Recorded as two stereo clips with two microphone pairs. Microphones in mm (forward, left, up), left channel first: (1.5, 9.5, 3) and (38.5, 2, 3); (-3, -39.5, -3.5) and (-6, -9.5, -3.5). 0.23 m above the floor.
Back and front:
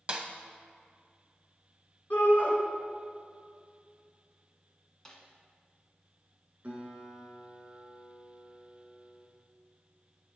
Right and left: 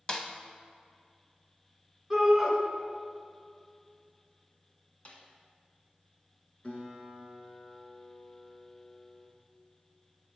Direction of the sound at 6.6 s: 60° right.